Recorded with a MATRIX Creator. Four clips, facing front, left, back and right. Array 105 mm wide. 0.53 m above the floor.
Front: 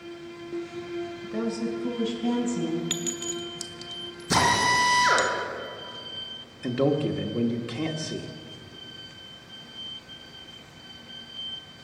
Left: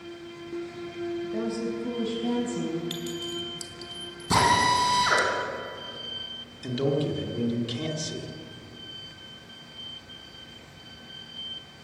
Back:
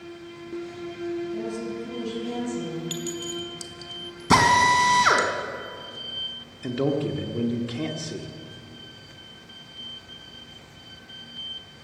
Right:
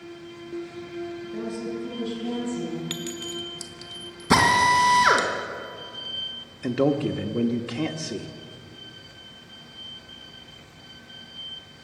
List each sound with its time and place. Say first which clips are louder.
1.2 s a woman speaking: left 2 dB, front 1 dB; 20° left, 3 m; by 2.8 s 30° left, 5 m
2.9 s a clink: even, back 1 dB; 30° right, 1.1 m
4.3 s a drill: right 3 dB, back 5 dB; 155° right, 2.5 m
6.6 s a man speaking: right 4 dB, front 1 dB; 80° right, 1.0 m